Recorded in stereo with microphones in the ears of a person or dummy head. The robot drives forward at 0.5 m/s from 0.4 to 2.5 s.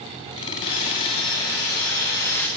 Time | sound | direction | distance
0.6 | sawing | 20° left (ahead or behind) | 0.9 m